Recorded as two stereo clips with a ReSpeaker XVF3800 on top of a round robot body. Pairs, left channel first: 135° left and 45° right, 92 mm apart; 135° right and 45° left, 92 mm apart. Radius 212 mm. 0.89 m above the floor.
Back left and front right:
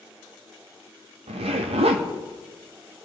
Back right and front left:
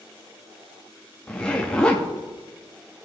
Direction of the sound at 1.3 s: 55° right.